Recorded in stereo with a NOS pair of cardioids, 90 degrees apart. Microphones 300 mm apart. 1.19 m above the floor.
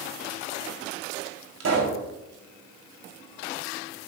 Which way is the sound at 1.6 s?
55° right.